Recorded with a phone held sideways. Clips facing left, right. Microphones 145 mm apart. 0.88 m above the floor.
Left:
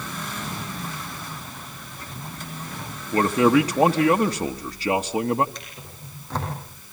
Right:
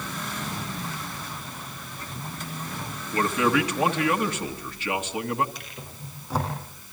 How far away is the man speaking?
About 1.2 m.